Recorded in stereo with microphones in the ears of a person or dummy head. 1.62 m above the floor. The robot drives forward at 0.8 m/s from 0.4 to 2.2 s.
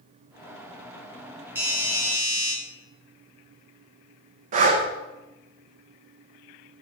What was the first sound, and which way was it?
A doorbell, 10° right (ahead or behind).